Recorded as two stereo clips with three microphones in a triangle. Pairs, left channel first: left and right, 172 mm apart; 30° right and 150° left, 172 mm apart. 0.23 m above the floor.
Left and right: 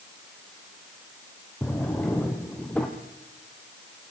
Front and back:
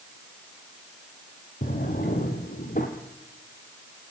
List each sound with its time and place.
1.6 s a drawer: 5° left, 3.5 m